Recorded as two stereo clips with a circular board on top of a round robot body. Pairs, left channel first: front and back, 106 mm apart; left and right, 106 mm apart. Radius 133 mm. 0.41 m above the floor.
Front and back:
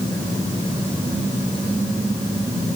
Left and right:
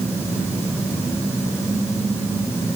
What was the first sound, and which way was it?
Only background noise.